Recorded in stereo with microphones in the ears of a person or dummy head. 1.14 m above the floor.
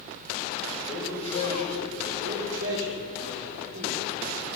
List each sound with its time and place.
0.9 s a man speaking: 25° left (ahead or behind), 5.5 m
2.2 s a man speaking: 70° right (ahead or behind), 3.5 m